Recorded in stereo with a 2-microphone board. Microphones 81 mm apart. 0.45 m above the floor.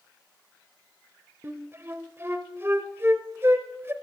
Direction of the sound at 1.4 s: 30° right (ahead or behind).